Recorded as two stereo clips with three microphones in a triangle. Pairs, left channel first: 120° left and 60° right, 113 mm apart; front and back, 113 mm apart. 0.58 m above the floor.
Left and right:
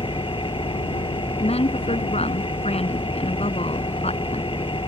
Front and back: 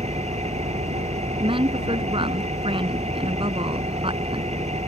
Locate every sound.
0.0 s an engine running: 160° left
1.4 s a woman speaking: 140° left